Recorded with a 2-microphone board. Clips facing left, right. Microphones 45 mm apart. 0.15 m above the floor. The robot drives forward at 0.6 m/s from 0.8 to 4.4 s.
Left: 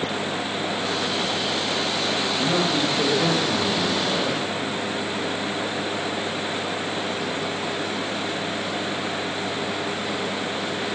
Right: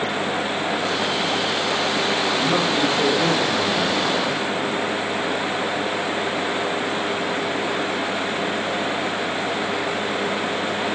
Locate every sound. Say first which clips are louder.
2.4 s a man speaking: even; 5° right (ahead or behind), 5 m; by 4.4 s centre (ahead or behind), 6 m